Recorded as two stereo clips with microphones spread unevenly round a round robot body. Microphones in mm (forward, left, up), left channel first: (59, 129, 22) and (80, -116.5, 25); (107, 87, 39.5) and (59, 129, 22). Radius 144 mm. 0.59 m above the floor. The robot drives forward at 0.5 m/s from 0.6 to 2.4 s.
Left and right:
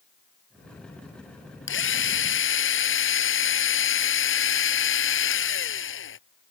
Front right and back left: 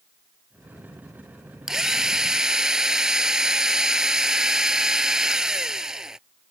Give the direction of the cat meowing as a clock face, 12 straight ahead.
No cat meowing in this recording.